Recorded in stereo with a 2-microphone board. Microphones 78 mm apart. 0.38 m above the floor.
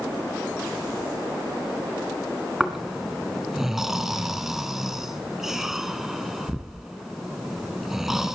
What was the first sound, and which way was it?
Snoring, 5° right (ahead or behind).